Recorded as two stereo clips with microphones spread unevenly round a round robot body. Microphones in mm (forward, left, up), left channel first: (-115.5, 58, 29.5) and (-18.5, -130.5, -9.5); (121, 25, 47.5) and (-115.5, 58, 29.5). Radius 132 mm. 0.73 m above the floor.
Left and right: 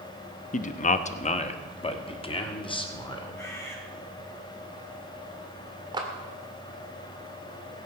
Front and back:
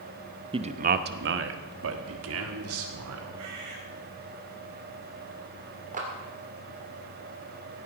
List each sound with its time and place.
0.5 s a man speaking: 145° left, 0.8 m; by 3.4 s 170° right, 2.5 m
3.4 s a bird: 165° right, 3.5 m
5.9 s a clap: 130° right, 2.5 m